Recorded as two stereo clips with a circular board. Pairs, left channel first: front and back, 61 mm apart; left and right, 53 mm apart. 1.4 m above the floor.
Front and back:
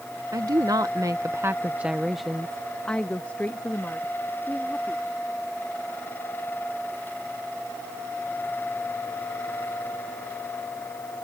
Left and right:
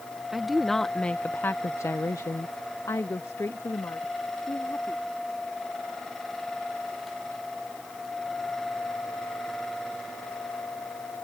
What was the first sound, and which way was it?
A woman speaking, 175° right.